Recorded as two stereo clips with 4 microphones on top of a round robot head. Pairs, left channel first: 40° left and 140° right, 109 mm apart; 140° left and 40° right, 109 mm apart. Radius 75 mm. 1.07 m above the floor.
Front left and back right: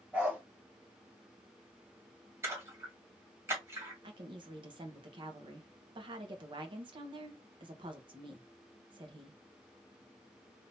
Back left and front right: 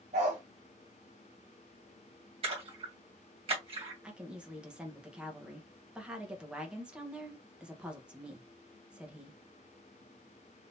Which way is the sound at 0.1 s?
60° right.